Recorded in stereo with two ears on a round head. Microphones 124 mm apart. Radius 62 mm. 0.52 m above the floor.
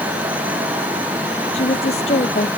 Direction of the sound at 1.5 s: 50° left (ahead or behind).